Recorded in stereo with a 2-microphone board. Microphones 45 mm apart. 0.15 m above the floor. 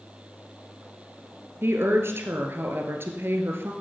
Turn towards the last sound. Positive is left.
turn(degrees=-65)  # may be behind; listen again after turning